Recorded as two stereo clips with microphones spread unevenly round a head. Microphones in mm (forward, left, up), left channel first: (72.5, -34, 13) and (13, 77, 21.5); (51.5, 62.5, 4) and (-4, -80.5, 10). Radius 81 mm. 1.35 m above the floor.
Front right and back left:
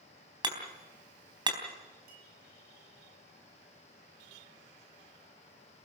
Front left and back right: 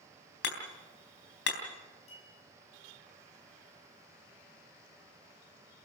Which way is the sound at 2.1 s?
125° left.